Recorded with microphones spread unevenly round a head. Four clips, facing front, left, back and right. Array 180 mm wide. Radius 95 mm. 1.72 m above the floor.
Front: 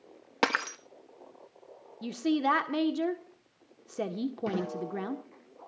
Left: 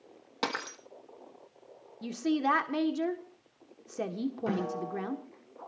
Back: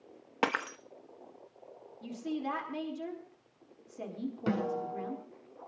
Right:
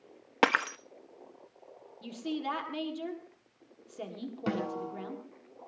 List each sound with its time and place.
0.4 s breaking glass: 70° right, 1.3 m
2.0 s a woman speaking: 25° left, 1.5 m
4.5 s a snare drum: 130° right, 6.5 m